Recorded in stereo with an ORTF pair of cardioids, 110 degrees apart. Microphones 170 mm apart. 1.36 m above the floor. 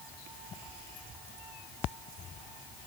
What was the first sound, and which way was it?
Only background noise.